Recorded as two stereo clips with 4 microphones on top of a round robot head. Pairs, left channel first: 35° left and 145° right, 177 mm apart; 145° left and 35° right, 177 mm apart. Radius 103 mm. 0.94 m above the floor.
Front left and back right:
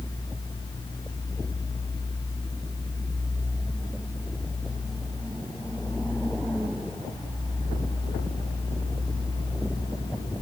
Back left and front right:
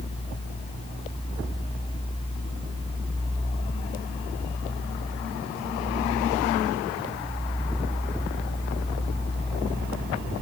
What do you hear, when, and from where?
Only background noise.